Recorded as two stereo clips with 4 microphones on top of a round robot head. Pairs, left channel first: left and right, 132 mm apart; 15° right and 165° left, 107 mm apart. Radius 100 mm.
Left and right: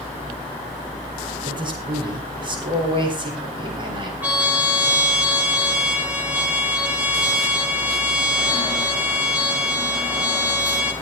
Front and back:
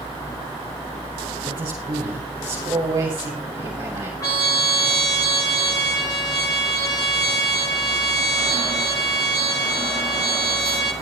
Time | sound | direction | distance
1.4 | a man speaking | 140° right | 5.5 m
4.2 | a trumpet | 20° right | 0.8 m